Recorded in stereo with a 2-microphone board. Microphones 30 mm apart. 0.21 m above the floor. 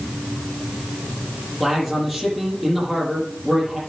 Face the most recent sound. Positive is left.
turn(degrees=0)  # may be behind; listen again after turning